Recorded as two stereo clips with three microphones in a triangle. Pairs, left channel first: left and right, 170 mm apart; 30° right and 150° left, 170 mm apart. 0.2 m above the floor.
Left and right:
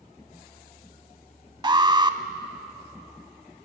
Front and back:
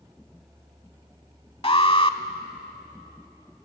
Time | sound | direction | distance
1.6 | an alarm | 50° right | 0.8 m